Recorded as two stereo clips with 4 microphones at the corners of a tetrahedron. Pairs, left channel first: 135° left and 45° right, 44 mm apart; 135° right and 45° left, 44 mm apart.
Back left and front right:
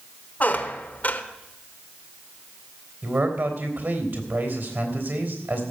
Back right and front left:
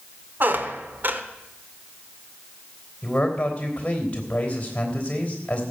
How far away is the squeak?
About 1.1 m.